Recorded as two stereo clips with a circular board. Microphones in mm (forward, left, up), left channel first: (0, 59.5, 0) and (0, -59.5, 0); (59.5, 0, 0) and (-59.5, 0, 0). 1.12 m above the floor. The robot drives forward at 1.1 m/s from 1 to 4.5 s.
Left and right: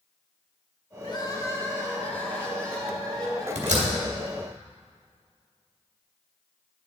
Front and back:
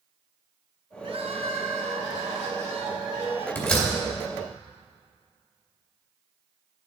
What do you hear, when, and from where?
1.0 s crying: 135° left, 0.6 m; by 3.5 s 170° left, 3 m
3.5 s a door slam: 75° right, 2 m; by 3.9 s 85° right, 2.0 m